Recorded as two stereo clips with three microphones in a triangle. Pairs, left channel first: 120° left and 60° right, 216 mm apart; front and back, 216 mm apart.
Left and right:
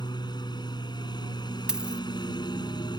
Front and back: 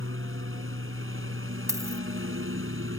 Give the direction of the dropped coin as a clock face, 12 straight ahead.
5 o'clock.